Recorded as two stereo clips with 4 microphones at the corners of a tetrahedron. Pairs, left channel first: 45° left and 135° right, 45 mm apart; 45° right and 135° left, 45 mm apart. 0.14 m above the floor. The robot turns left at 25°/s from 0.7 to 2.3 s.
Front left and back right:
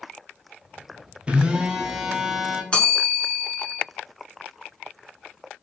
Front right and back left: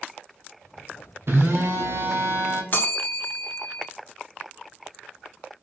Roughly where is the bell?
Ahead.